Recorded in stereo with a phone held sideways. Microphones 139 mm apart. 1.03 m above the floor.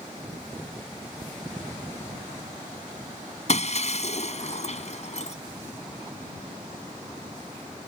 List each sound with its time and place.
3.5 s breaking glass: 55° left (ahead or behind)